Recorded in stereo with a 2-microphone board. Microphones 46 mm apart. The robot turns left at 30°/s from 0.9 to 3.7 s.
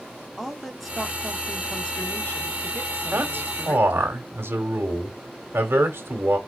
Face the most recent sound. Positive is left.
turn(degrees=-55)  # may be behind; listen again after turning